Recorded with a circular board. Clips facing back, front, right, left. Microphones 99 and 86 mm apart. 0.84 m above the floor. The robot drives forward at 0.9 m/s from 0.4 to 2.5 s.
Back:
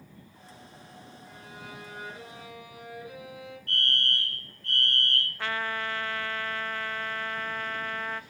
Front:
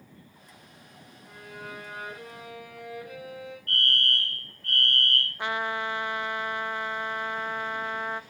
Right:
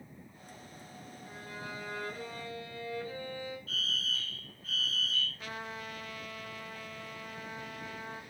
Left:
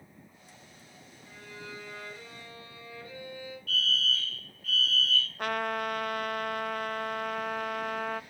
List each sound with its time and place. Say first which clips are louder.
1.2 s a violin: front 5 dB, right 1 dB; 30° right, 7.5 m; by 3.6 s 40° right, 6.5 m
3.7 s a fire alarm: front 2 dB, left 6 dB; 35° right, 3 m
5.4 s a trumpet: front 3 dB, left 11 dB; 70° left, 0.5 m